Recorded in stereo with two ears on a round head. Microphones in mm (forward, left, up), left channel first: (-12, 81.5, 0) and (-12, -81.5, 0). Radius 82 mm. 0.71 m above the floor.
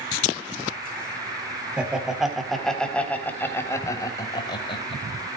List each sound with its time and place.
1.8 s laughter: 5° right (ahead or behind), 3.5 m; by 5.0 s 30° left (ahead or behind), 3.5 m